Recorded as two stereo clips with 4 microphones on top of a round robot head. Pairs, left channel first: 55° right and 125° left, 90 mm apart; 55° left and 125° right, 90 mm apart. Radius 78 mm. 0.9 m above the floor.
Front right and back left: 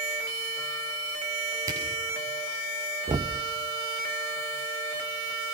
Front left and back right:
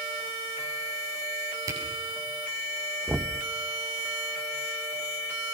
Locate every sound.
1.7 s a camera shutter: straight behind, 8 m
3.1 s knocking: 150° left, 0.7 m